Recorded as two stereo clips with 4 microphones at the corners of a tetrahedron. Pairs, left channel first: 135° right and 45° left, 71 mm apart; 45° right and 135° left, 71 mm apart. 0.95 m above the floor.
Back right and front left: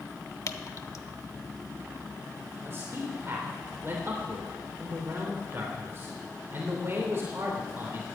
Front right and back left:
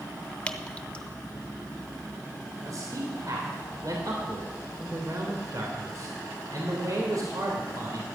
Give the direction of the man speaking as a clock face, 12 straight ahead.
9 o'clock.